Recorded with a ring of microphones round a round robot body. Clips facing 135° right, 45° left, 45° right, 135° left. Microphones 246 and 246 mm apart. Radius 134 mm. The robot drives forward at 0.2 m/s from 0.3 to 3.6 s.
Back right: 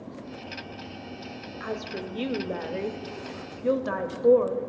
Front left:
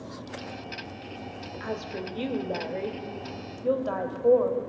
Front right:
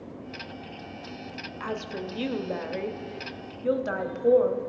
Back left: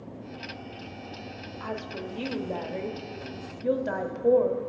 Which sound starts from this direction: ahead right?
A woman speaking, at 1.6 s.